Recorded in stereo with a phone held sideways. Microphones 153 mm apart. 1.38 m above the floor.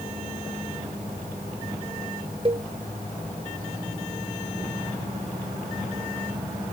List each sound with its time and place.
2.5 s a cowbell: 35° right (ahead or behind)